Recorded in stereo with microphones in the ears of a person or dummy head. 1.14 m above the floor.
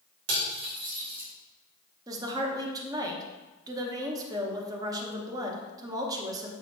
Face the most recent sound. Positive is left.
turn(degrees=-20)  # may be behind; listen again after turning